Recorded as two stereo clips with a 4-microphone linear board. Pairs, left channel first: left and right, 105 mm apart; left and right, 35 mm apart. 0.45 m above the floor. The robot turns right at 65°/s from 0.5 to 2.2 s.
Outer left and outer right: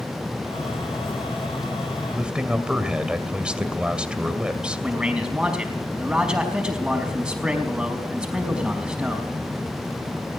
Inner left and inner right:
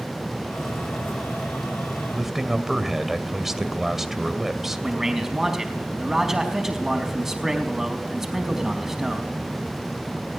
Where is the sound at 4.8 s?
10° right (ahead or behind), 4.5 m.